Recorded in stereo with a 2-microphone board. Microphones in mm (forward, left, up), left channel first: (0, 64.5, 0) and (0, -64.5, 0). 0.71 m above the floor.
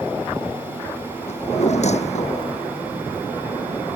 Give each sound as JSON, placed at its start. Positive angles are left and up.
{"t": 1.3, "sound": "a drawer", "side_deg": 60}